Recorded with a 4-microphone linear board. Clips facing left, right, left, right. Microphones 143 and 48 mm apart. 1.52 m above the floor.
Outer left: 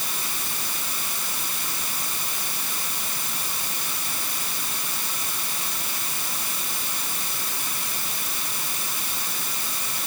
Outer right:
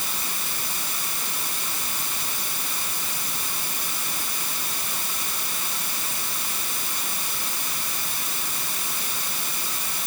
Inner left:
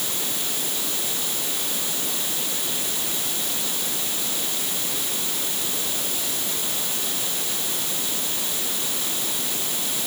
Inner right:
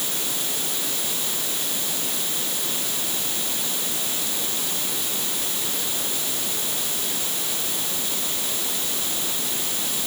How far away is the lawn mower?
I don't hear a lawn mower.